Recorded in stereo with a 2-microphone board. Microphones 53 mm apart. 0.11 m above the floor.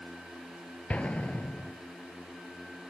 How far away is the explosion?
About 0.8 m.